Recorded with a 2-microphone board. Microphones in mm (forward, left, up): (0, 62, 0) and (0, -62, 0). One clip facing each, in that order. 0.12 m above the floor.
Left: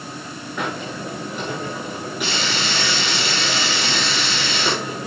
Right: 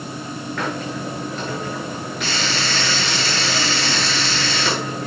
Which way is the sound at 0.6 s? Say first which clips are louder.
Even; 10° left (ahead or behind).